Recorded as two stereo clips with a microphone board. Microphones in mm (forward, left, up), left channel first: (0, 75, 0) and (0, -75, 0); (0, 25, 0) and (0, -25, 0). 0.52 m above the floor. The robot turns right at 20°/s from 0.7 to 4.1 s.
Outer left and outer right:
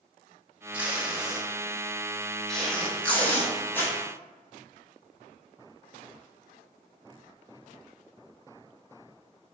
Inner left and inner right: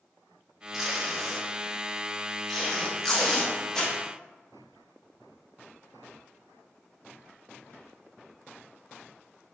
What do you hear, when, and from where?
0.7 s tape being pulled: 10° right (ahead or behind), 0.8 m; by 4.0 s 15° left (ahead or behind), 0.8 m